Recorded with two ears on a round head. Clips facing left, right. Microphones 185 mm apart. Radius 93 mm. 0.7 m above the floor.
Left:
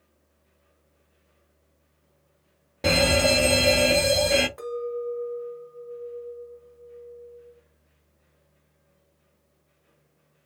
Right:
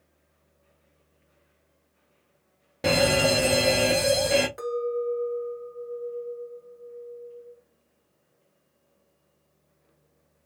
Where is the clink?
15° right (ahead or behind), 1.7 m.